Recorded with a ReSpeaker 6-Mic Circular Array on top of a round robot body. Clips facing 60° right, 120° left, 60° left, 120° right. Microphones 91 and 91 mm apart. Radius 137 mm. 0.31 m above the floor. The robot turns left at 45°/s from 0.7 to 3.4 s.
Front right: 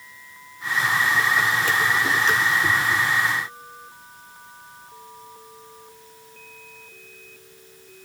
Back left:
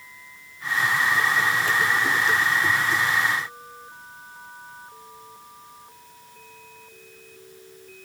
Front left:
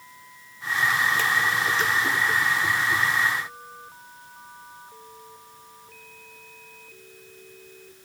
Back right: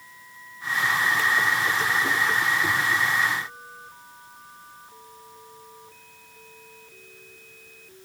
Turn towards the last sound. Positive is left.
No sound to turn to.